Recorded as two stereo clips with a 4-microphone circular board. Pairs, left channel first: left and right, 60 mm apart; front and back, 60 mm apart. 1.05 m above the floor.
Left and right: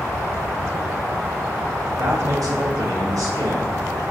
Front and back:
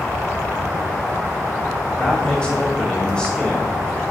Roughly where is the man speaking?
Right.